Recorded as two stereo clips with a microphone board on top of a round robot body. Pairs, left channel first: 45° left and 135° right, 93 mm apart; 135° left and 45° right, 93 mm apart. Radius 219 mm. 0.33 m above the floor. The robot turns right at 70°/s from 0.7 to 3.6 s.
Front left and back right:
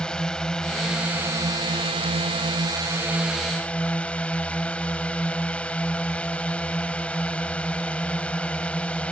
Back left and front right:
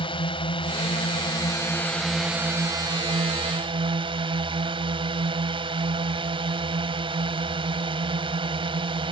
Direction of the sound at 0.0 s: 125° left.